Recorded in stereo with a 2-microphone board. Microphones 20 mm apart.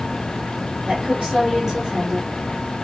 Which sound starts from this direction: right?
A woman speaking, at 0.9 s.